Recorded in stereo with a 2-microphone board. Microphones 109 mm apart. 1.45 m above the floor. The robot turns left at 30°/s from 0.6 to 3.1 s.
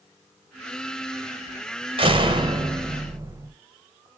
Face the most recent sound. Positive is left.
turn(degrees=-145)